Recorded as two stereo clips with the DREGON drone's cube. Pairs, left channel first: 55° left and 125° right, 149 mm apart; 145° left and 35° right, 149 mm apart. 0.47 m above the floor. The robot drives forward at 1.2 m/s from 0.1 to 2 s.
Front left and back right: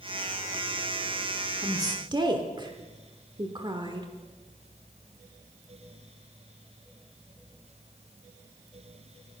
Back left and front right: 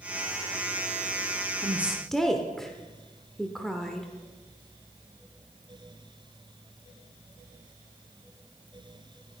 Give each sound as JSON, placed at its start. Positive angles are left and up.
{"t": 1.6, "sound": "a woman speaking", "azimuth_deg": -70, "distance_m": 0.9}